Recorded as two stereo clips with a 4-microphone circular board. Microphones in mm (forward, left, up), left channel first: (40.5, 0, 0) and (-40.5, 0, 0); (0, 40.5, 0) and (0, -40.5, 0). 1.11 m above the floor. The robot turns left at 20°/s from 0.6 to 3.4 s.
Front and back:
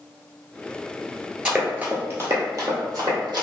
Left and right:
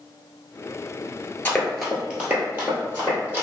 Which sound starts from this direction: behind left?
Running footsteps, at 1.4 s.